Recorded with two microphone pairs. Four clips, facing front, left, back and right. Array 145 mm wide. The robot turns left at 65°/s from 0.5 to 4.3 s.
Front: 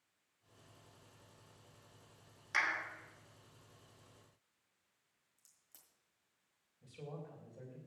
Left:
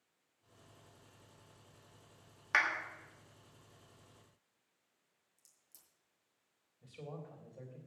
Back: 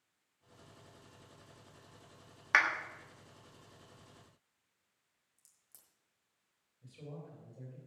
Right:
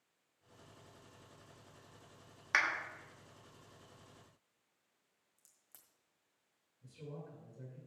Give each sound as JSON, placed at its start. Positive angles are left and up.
{"t": 2.5, "sound": "a clap", "azimuth_deg": 155, "distance_m": 1.3}
{"t": 5.4, "sound": "a crack", "azimuth_deg": -85, "distance_m": 1.6}
{"t": 6.8, "sound": "a man speaking", "azimuth_deg": 85, "distance_m": 3.5}